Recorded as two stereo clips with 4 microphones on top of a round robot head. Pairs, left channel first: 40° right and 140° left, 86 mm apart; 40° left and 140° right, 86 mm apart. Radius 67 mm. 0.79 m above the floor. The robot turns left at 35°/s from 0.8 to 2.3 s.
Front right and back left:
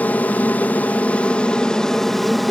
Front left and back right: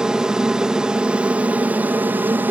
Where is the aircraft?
70° right; by 2.5 s 125° right.